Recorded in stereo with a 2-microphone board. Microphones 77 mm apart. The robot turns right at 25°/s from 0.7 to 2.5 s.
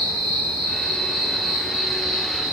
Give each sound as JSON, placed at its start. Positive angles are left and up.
{"t": 0.0, "sound": "an insect", "azimuth_deg": 160, "distance_m": 1.0}